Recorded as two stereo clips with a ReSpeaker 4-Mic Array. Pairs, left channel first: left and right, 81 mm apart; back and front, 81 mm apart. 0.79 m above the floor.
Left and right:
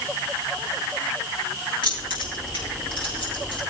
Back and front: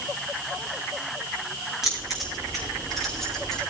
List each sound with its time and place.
1.8 s keys jangling: 85° left, 6 m; by 3.6 s 95° left, 6 m